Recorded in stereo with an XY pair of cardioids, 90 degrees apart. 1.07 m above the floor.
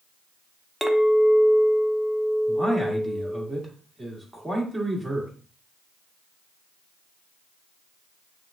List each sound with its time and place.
0.8 s a clink: 10° right, 0.8 m
2.5 s a man speaking: 5° right, 1.7 m